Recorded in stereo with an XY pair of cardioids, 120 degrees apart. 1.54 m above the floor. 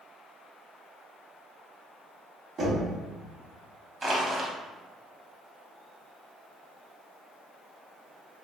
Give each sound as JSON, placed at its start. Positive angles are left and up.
{"t": 2.6, "sound": "knocking", "azimuth_deg": -45, "distance_m": 1.5}
{"t": 4.0, "sound": "crushing", "azimuth_deg": -30, "distance_m": 0.9}